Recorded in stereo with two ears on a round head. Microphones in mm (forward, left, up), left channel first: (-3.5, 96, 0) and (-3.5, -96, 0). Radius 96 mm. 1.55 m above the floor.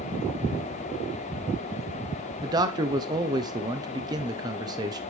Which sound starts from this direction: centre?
A man speaking, at 2.4 s.